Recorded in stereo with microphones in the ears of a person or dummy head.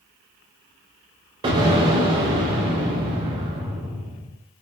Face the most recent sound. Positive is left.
turn(degrees=-30)  # may be behind; listen again after turning